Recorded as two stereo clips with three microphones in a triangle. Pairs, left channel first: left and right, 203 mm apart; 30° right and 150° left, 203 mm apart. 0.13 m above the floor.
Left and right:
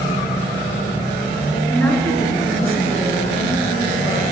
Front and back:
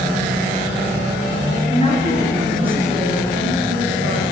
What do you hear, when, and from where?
1.7 s a woman speaking: 10° left, 2 m; by 4.2 s 145° left, 3 m